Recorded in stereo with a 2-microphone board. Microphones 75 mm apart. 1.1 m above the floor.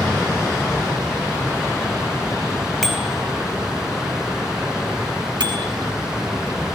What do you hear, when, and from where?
2.8 s a bicycle bell: 5° left (ahead or behind), 4 m
5.4 s a bicycle bell: 85° right, 5.5 m